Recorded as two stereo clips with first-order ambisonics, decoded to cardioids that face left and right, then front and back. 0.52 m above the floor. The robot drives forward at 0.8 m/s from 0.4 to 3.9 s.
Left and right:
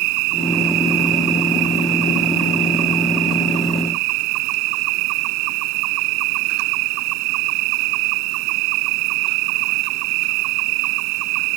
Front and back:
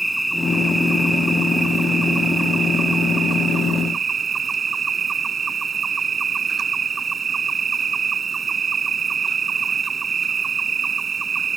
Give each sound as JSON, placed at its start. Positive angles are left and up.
{"t": 0.0, "sound": "an insect", "azimuth_deg": -90}